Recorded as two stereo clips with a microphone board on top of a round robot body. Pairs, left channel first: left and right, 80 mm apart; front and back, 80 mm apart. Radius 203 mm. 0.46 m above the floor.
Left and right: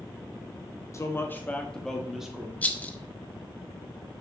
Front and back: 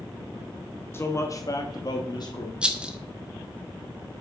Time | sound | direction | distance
0.9 | a man speaking | 50° left | 1.6 m
2.6 | a rattle | 125° left | 1.1 m